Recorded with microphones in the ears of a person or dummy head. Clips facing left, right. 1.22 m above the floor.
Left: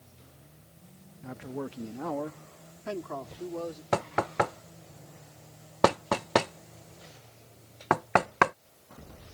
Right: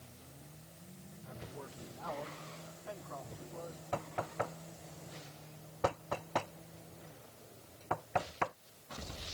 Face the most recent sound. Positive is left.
turn(degrees=75)  # may be behind; listen again after turning